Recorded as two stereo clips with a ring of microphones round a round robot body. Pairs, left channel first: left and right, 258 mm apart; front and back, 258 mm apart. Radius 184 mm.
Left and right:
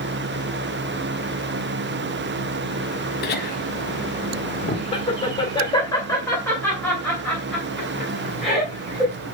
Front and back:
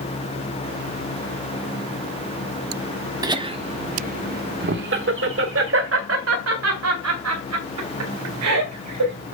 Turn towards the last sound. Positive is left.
turn(degrees=-175)